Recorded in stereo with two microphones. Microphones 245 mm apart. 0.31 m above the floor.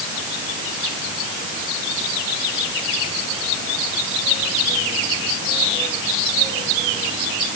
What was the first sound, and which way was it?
Only background noise.